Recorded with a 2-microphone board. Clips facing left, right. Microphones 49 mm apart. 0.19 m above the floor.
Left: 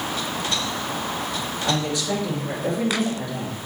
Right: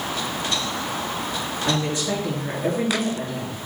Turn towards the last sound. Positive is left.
turn(degrees=-30)  # may be behind; listen again after turning